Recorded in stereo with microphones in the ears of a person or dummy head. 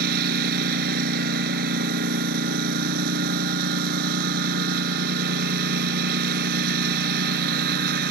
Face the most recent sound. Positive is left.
turn(degrees=-60)  # may be behind; listen again after turning